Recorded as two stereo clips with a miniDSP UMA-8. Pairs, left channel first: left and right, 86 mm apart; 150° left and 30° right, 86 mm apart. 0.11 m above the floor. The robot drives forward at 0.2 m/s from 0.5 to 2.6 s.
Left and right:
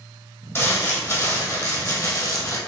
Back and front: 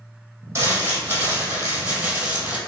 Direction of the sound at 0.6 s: 30° left.